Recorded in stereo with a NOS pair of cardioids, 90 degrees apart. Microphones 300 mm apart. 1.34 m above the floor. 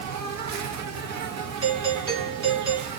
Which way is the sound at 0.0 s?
65° right.